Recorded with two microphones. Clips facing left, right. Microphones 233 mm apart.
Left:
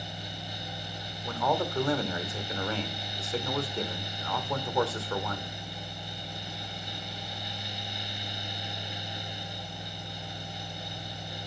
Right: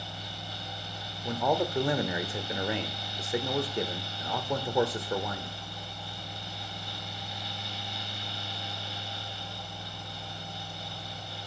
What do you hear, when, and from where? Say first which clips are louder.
1.2 s a man speaking: right 2 dB; 15° right (ahead or behind), 0.9 m